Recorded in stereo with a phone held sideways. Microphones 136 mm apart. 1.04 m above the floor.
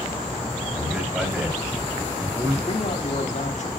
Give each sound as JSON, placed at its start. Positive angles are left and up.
{"t": 0.7, "sound": "a man speaking", "side_deg": -5, "distance_m": 6.5}
{"t": 2.7, "sound": "a man speaking", "side_deg": 55, "distance_m": 2.0}